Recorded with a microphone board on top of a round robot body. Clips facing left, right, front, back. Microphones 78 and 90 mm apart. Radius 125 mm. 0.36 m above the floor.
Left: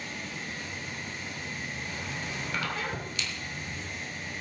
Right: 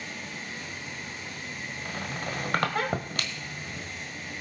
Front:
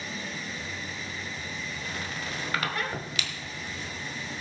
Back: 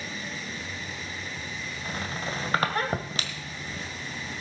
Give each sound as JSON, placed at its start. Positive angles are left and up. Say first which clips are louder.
{"t": 1.9, "sound": "a squeak", "louder": "right 2 dB, back 5 dB", "azimuth_deg": -125, "distance_m": 1.5}